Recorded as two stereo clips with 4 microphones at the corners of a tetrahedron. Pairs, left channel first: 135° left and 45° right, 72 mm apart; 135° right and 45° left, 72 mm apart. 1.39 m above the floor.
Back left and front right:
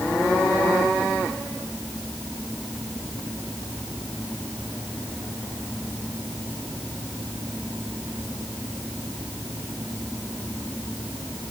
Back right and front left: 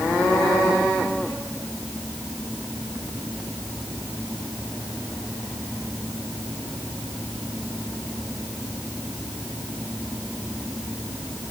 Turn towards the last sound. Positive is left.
No sound to turn to.